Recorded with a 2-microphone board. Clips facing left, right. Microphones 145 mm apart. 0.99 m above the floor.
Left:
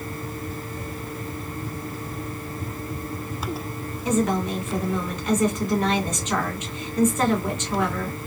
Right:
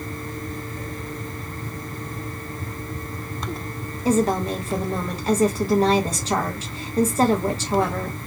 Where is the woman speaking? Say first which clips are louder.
Right 3 dB; 35° right (ahead or behind), 0.9 m.